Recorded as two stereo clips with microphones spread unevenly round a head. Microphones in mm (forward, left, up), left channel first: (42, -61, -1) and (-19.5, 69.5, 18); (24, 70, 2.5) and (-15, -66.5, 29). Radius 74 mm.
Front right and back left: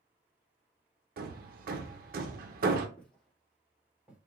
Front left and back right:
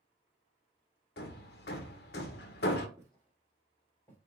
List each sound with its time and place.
1.2 s hammering: 100° left, 0.6 m
3.0 s footsteps: 150° right, 1.5 m; by 4.2 s 150° left, 1.2 m